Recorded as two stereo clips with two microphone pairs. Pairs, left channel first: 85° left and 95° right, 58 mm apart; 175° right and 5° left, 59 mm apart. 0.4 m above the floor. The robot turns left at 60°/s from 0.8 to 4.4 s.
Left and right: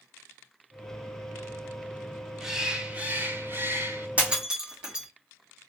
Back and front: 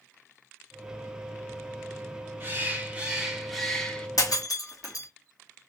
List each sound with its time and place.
2.4 s a bird: 15° right, 1.1 m; by 4.1 s 115° right, 1.1 m
4.2 s breaking glass: 160° right, 2.0 m; by 5.1 s 175° right, 2.0 m